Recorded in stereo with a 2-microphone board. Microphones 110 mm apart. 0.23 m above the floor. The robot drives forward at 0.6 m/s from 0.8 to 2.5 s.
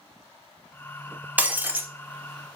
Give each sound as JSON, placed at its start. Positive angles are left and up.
{"t": 1.4, "sound": "breaking glass", "side_deg": -15, "distance_m": 0.7}